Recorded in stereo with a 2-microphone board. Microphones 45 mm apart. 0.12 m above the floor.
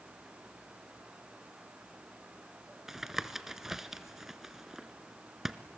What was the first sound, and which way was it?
Tapping, 10° right (ahead or behind).